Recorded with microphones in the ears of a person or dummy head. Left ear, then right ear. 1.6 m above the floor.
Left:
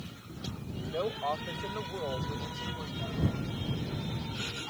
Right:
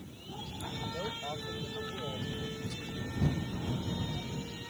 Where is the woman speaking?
75° left (ahead or behind); by 3.3 s 80° left.